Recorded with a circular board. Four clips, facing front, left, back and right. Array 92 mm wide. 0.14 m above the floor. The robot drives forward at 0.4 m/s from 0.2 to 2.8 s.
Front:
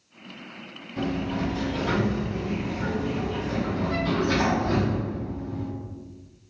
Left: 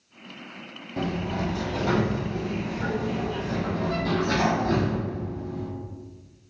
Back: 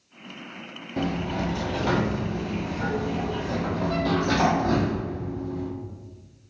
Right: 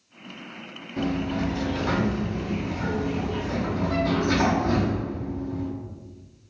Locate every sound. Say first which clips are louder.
1.0 s a sliding door: right 2 dB, even; 150° left, 0.8 m; by 5.7 s 165° left, 1.5 m